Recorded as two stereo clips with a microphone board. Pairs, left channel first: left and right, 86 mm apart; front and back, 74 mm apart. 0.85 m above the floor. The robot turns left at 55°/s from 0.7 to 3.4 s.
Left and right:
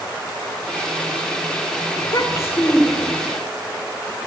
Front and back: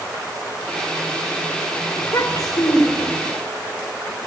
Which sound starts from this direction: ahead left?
A child speaking, at 2.0 s.